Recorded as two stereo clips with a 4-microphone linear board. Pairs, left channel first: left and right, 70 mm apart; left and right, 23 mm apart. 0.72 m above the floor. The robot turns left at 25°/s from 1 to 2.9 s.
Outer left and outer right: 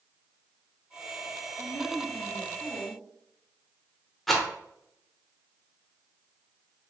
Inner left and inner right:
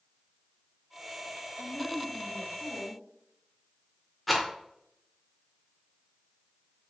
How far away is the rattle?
About 0.6 m.